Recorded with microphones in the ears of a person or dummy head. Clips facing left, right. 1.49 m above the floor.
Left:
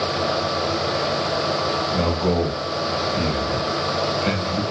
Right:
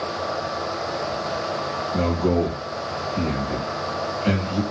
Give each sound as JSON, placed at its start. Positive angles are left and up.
{"t": 1.9, "sound": "a man speaking", "side_deg": 5, "distance_m": 1.4}